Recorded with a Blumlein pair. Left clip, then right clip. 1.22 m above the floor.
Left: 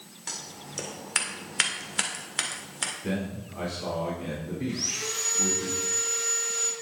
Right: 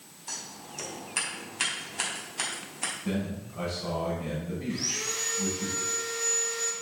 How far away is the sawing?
About 2.5 m.